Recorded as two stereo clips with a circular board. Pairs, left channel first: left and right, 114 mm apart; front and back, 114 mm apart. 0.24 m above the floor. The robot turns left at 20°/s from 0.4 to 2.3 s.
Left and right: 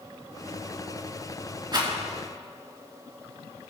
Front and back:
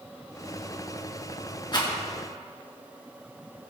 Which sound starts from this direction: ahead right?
A rattle, at 1.7 s.